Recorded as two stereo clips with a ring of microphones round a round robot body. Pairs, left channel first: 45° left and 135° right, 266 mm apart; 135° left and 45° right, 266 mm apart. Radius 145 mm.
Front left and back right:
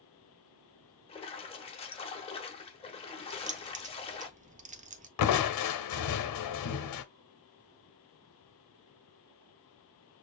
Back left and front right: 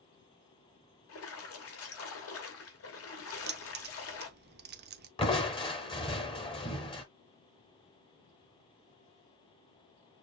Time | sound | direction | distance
1.1 | a splash | 110° left | 1.1 m
3.3 | keys jangling | 80° right | 0.6 m
5.2 | crushing | 65° left | 0.8 m